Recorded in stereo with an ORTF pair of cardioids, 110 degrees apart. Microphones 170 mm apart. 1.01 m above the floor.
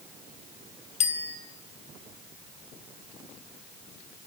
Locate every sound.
1.0 s a bicycle bell: 40° left, 3.5 m